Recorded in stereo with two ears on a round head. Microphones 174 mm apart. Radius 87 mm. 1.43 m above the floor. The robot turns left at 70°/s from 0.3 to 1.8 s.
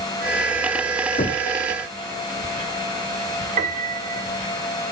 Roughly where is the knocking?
Left.